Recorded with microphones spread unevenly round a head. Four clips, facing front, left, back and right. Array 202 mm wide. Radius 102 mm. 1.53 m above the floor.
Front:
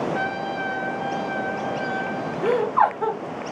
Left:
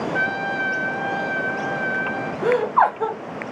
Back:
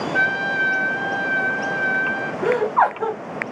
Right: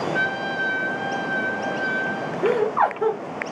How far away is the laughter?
About 1.1 m.